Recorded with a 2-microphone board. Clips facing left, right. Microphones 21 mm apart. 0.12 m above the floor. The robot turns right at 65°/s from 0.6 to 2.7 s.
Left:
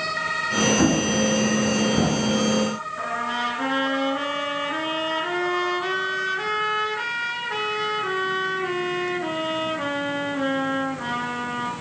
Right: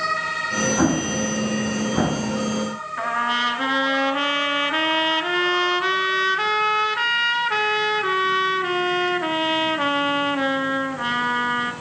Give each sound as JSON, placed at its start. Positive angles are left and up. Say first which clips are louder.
{"t": 0.8, "sound": "an explosion", "louder": "left 1 dB", "side_deg": -20, "distance_m": 0.8}
{"t": 3.0, "sound": "a trumpet", "louder": "right 6 dB", "side_deg": -30, "distance_m": 0.8}